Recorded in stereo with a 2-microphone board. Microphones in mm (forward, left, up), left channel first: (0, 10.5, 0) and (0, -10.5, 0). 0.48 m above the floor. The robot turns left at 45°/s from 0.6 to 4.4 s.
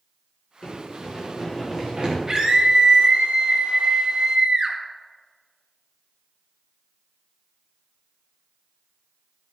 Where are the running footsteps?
50° left (ahead or behind), 4 m; by 2.2 s 50° right (ahead or behind), 3.5 m.